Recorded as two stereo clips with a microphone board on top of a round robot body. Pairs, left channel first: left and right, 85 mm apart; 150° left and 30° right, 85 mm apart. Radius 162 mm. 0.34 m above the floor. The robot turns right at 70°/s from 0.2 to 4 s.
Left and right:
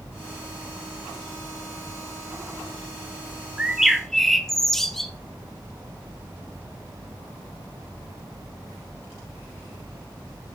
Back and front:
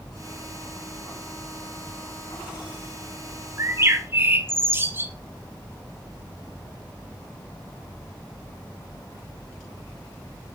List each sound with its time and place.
3.6 s a bird: 25° right, 1.4 m; by 5.1 s 5° left, 1.4 m